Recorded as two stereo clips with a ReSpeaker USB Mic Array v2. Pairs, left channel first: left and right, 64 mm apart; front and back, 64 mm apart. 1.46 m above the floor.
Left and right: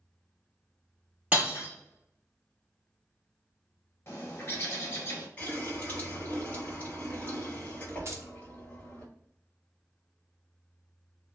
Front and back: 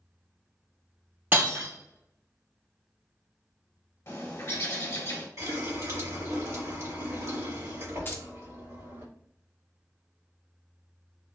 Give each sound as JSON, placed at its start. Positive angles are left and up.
{"t": 1.3, "sound": "breaking glass", "azimuth_deg": -140, "distance_m": 1.9}
{"t": 4.1, "sound": "a bird", "azimuth_deg": 40, "distance_m": 1.2}
{"t": 5.4, "sound": "a running tap", "azimuth_deg": 155, "distance_m": 1.5}
{"t": 8.1, "sound": "keys jangling", "azimuth_deg": -50, "distance_m": 0.6}